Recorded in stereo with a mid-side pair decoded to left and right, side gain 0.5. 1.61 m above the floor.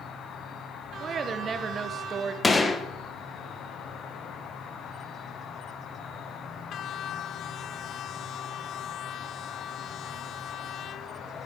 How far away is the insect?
About 1.1 m.